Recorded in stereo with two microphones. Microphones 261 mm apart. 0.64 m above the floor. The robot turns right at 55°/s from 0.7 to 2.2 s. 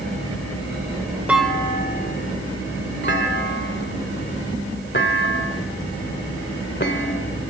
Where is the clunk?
5° right (ahead or behind), 1.6 m; by 7.4 s 45° left (ahead or behind), 1.6 m.